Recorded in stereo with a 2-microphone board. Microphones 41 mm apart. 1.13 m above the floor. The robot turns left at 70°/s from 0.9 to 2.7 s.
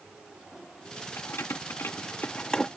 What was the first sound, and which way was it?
Keys jangling, 65° left (ahead or behind).